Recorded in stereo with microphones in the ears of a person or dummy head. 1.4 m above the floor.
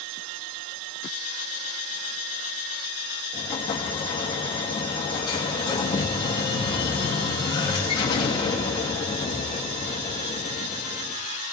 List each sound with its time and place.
3.3 s an explosion: 25° left (ahead or behind), 2.5 m